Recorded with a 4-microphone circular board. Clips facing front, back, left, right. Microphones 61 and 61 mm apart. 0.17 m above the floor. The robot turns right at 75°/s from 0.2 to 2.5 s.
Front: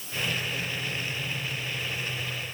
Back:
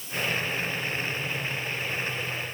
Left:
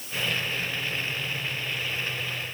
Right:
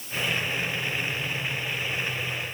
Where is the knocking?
I don't hear knocking.